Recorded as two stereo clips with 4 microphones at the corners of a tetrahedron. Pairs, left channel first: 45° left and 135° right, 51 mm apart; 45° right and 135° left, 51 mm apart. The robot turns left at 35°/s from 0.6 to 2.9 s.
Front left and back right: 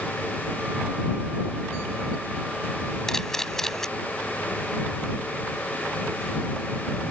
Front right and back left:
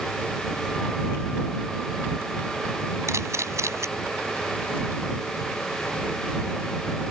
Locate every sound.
3.1 s a camera shutter: 125° left